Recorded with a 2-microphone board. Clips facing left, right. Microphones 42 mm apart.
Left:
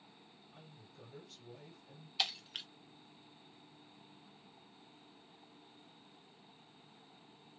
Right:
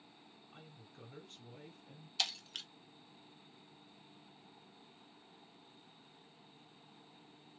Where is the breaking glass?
10° left (ahead or behind), 0.6 m.